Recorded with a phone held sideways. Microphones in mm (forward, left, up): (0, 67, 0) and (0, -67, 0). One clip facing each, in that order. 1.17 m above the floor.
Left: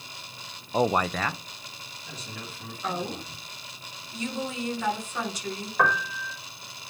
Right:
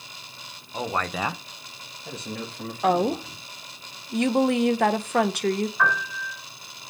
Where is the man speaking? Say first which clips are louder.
Left 4 dB; 40° left (ahead or behind), 0.6 m; by 3.4 s 70° right (ahead or behind), 3 m.